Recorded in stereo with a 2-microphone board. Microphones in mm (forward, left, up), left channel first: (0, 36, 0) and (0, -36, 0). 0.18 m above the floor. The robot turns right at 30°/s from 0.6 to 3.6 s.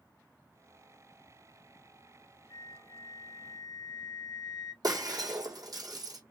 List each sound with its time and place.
2.5 s a flute: 90° left, 0.5 m; by 4.7 s 125° left, 0.5 m
4.8 s breaking glass: 60° right (ahead or behind), 2 m